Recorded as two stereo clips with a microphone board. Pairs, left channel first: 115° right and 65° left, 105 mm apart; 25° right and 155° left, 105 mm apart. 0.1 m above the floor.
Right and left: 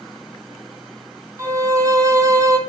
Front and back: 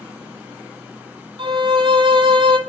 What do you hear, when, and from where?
1.4 s a violin: 125° left, 0.8 m